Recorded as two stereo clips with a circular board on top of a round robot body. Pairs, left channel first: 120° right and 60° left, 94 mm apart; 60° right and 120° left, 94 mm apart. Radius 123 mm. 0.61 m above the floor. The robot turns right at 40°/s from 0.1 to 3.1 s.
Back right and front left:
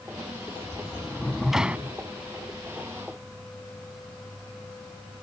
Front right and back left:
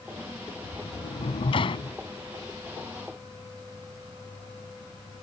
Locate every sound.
0.6 s a sliding door: 60° right; by 2.0 s 10° right